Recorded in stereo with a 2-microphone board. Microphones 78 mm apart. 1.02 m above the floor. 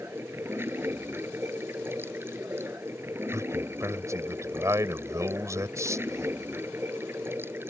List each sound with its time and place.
0.0 s running water: 30° right (ahead or behind)
3.3 s a man speaking: 40° right (ahead or behind)